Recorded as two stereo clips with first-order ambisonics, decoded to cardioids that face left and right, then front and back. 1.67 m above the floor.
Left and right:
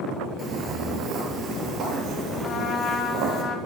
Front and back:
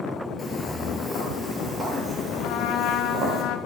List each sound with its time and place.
0.4 s footsteps: 65° right, 1.9 m; by 3.4 s 125° right, 3 m
2.4 s a trumpet: 35° left, 0.9 m